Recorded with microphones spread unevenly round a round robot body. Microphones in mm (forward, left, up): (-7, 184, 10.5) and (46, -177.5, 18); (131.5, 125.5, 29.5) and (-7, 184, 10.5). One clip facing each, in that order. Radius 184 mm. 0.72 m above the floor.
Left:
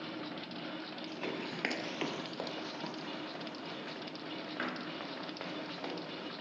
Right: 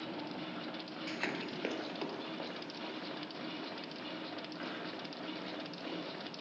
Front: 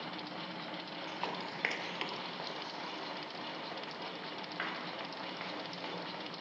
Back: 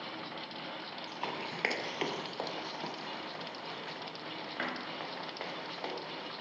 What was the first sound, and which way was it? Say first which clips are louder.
Running footsteps: even, back 1 dB; 80° right.